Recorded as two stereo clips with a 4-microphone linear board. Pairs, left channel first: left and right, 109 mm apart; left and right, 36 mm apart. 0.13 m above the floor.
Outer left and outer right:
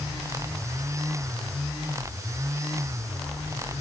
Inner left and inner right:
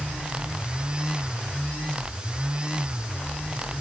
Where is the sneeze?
I don't hear a sneeze.